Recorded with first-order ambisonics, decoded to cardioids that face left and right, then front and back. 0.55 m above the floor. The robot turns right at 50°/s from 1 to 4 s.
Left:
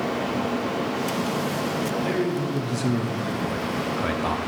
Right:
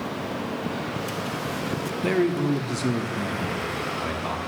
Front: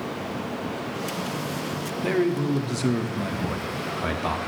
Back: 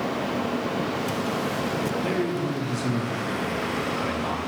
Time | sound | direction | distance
2.0 | a man speaking | 65° right | 0.9 m